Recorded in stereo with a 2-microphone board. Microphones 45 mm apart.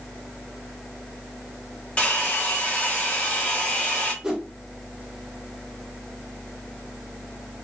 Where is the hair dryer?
20° left (ahead or behind), 1.2 m.